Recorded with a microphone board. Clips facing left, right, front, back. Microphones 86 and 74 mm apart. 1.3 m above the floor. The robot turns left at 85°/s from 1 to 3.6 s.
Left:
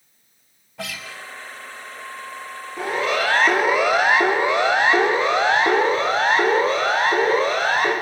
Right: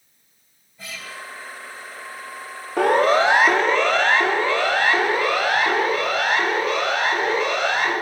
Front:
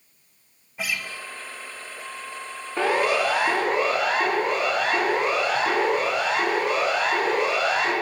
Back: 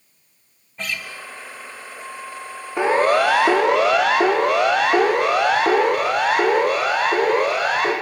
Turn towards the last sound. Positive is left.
turn(degrees=140)